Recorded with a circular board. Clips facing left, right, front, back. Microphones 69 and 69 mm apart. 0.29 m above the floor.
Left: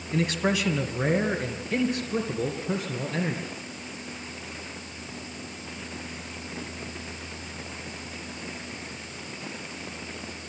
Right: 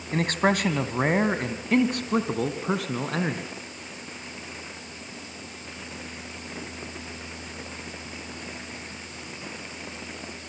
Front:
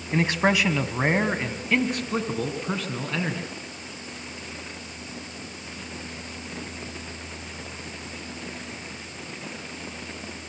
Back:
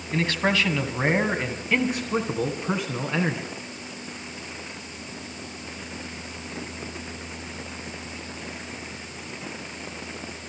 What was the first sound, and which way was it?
A man speaking, 65° right.